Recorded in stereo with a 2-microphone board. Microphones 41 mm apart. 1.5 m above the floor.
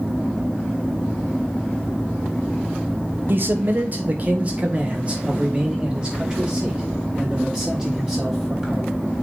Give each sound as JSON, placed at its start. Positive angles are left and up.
{"t": 3.3, "sound": "a man speaking", "side_deg": -55, "distance_m": 1.1}